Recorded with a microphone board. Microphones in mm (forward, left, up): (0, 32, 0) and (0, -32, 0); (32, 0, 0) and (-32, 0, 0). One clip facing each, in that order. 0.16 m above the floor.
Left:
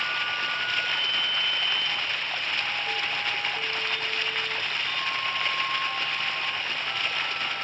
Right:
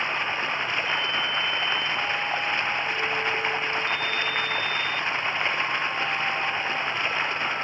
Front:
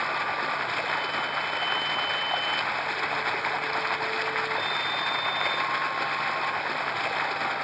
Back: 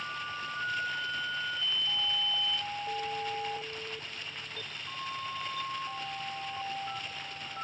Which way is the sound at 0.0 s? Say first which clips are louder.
Right 2 dB, front 10 dB; 25° right.